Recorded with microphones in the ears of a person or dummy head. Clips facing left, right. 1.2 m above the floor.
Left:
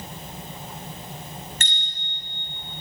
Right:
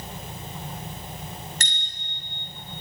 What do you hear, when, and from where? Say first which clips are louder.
1.6 s a bicycle bell: left 1 dB; 35° right (ahead or behind), 5.5 m